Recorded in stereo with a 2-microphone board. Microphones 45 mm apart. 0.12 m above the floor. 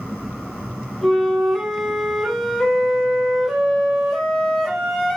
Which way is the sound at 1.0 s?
10° left (ahead or behind).